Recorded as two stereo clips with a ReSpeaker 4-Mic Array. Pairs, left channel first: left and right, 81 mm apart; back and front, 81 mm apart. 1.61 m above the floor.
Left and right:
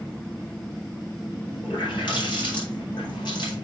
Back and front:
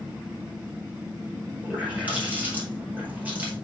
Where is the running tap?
70° left, 4.5 m.